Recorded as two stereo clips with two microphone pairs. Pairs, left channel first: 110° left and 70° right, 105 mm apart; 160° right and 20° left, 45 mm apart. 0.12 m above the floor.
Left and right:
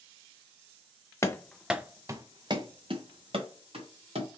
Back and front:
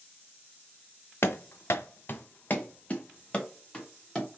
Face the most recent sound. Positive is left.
turn(degrees=-90)